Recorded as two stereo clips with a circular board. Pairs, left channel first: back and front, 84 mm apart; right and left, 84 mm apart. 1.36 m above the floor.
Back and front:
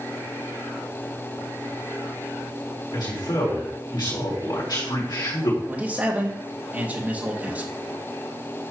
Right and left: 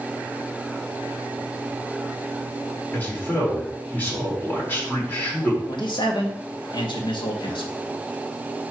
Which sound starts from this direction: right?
A man speaking, at 5.7 s.